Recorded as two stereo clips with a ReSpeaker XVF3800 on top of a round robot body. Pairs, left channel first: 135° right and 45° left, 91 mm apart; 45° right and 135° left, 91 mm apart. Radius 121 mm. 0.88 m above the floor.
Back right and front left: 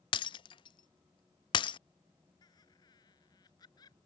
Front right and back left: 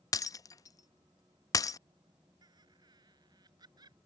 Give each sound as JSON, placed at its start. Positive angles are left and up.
{"t": 0.1, "sound": "breaking glass", "azimuth_deg": -100}
{"t": 2.4, "sound": "laughter", "azimuth_deg": 180}